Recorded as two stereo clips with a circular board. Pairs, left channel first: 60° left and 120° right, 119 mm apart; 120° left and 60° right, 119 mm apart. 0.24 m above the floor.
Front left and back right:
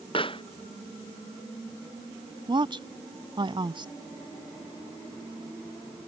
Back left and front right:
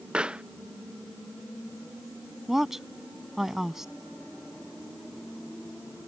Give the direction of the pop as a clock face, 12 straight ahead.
11 o'clock.